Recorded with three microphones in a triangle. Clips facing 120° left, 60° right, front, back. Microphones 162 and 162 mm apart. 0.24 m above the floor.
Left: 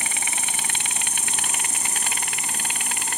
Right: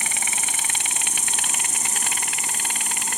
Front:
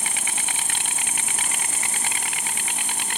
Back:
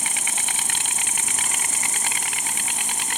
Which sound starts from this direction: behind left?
An insect, at 0.0 s.